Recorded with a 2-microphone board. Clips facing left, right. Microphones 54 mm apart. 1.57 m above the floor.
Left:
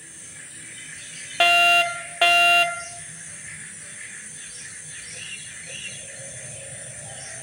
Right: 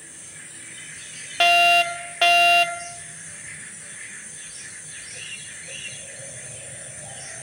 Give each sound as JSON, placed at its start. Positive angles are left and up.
{"t": 1.4, "sound": "a fire alarm", "side_deg": 5, "distance_m": 0.6}